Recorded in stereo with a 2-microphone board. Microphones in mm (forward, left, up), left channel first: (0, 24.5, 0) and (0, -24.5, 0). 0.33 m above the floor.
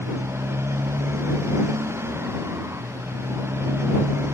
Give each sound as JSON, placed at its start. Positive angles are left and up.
{"t": 0.0, "sound": "a motorcycle", "side_deg": -70}